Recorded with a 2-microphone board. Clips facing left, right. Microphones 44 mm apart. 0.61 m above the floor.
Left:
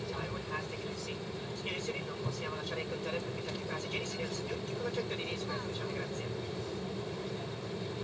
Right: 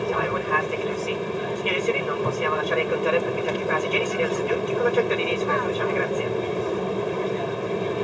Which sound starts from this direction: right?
An aircraft, at 0.0 s.